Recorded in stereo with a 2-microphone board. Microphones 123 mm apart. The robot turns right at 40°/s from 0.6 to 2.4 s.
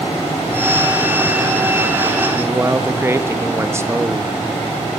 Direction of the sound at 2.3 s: 20° right (ahead or behind).